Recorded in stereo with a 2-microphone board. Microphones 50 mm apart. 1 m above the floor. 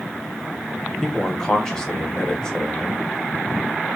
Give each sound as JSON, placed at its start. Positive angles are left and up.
{"t": 1.0, "sound": "a man speaking", "side_deg": 15, "distance_m": 0.8}